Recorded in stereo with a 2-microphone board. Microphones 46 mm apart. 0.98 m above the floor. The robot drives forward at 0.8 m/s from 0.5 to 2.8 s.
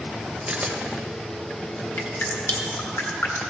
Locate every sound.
0.5 s a camera shutter: 30° right (ahead or behind), 1.0 m; by 2.6 s 20° right (ahead or behind), 1.3 m
2.0 s dripping: 55° left (ahead or behind), 1.4 m; by 3.4 s 60° left (ahead or behind), 1.2 m